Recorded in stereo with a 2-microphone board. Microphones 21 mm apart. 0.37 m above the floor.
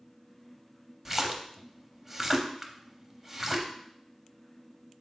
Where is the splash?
10° right (ahead or behind), 0.6 m.